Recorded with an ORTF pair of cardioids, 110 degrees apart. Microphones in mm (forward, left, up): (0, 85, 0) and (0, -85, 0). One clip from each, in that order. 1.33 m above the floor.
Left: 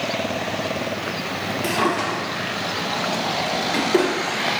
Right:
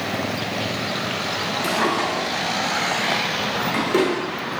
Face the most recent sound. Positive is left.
turn(degrees=0)